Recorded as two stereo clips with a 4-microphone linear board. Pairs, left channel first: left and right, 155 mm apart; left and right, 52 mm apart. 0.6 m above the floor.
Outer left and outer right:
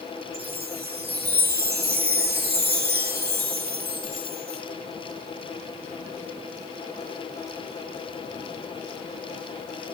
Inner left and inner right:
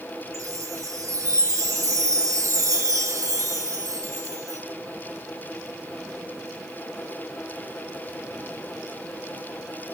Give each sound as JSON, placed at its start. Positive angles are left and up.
{"t": 0.3, "sound": "a chime", "side_deg": -85, "distance_m": 2.5}